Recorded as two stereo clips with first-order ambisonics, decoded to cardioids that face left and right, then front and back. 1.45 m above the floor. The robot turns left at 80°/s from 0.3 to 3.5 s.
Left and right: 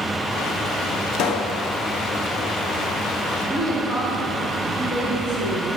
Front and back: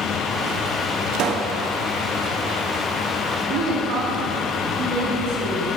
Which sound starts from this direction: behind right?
A woman speaking, at 3.5 s.